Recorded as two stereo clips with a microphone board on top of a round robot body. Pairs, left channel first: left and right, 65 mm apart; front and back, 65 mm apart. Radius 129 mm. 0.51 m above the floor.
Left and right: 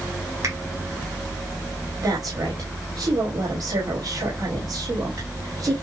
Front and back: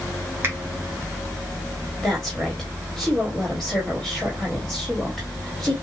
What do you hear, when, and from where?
0.4 s a finger snap: 125° right, 3 m
2.0 s a woman speaking: 85° right, 2 m